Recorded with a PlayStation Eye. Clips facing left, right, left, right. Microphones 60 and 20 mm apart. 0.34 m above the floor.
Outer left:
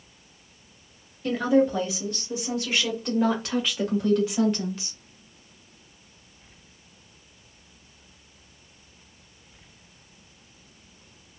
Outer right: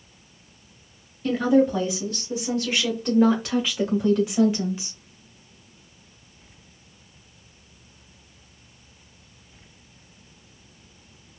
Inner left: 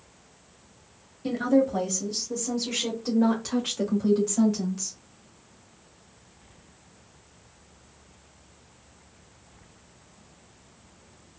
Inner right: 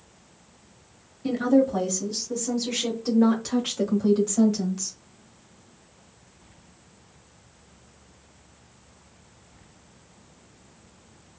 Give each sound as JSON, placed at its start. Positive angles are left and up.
{"t": 1.2, "sound": "a woman speaking", "side_deg": 5, "distance_m": 1.8}